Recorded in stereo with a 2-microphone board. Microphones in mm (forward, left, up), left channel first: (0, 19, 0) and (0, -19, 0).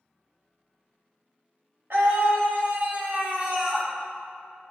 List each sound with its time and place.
1.9 s a scream: 70° right (ahead or behind), 1.9 m; by 3.9 s 20° right (ahead or behind), 1.7 m